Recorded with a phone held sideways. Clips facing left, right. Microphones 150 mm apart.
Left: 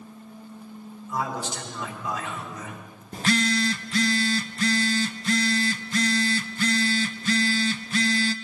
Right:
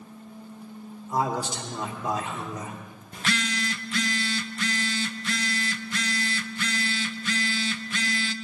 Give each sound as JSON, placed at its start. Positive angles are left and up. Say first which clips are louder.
{"t": 1.1, "sound": "a man speaking", "louder": "right 3 dB", "side_deg": -40, "distance_m": 4.0}
{"t": 3.1, "sound": "a phone buzzing", "louder": "left 6 dB", "side_deg": 35, "distance_m": 0.6}